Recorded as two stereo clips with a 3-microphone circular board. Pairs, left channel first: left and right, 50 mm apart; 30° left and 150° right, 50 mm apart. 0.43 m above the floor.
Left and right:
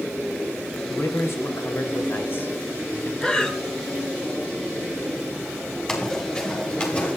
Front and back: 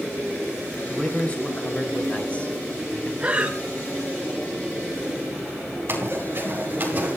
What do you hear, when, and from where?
0.9 s a man speaking: 90° left, 3 m; by 3.1 s 75° left, 1.8 m
3.2 s breathing: 155° left, 1.3 m
5.9 s running footsteps: 170° left, 5.5 m; by 7.2 s 150° left, 5.5 m